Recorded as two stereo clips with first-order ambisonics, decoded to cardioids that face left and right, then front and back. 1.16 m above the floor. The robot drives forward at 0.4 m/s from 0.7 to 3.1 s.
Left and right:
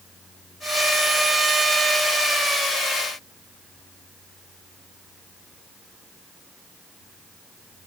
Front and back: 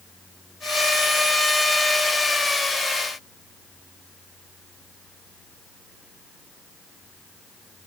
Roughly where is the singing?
No singing in this recording.